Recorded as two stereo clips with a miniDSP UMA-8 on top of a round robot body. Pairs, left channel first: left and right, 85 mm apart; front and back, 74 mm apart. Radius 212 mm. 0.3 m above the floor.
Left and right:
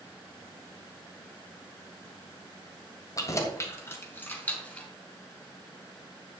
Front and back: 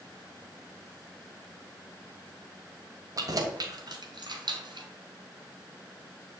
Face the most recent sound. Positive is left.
turn(degrees=165)